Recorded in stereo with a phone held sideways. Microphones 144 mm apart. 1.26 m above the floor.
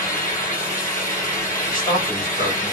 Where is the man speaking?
35° left (ahead or behind), 2.5 m.